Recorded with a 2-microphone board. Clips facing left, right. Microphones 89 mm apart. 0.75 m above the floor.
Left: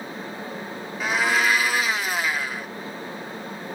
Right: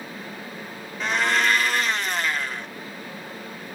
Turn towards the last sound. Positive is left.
turn(degrees=5)  # may be behind; listen again after turning